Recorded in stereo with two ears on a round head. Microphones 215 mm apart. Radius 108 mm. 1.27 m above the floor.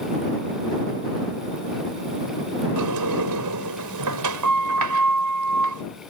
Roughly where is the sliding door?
Right.